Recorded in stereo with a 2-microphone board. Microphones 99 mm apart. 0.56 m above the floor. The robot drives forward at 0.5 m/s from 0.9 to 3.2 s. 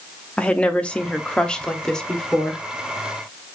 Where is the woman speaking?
10° left (ahead or behind), 0.6 m; by 2.6 s 5° left (ahead or behind), 1.2 m.